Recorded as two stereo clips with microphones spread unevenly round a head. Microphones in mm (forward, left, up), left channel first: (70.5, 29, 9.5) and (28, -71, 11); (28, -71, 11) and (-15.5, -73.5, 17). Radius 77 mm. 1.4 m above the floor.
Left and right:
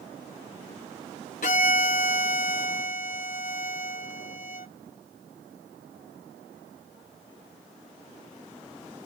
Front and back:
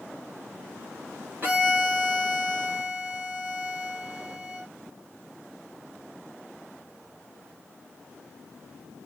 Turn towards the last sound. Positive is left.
turn(degrees=110)